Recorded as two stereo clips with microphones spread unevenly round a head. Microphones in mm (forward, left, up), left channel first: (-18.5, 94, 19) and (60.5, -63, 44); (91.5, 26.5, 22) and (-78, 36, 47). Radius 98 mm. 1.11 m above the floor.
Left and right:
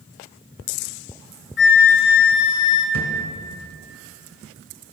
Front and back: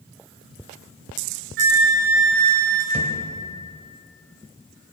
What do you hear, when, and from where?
1.6 s a flute: 145° left, 3 m
2.9 s a thud: 125° left, 2.5 m